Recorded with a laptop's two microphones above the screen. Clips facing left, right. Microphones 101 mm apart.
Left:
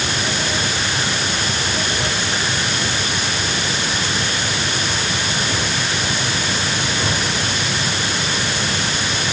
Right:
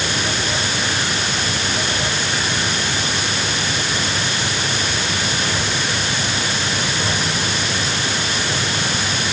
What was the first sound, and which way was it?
Only background noise.